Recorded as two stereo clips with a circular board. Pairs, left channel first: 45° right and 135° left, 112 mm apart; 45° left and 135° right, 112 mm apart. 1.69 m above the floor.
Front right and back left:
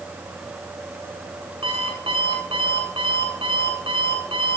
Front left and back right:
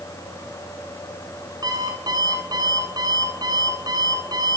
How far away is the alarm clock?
About 9 m.